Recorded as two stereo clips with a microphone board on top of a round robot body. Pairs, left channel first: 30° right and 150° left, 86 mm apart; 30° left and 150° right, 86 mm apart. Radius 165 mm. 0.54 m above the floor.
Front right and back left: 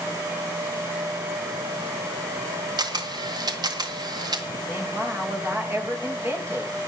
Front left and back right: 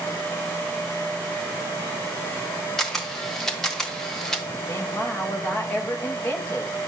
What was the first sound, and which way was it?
A camera shutter, 115° left.